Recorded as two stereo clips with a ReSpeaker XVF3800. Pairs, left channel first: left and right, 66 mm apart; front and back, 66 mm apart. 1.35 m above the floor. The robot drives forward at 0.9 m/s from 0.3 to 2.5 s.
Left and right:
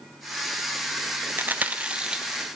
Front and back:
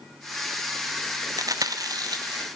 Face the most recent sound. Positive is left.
turn(degrees=-170)